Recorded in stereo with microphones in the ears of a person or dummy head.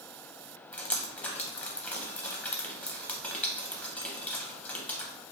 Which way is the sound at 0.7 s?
10° left (ahead or behind).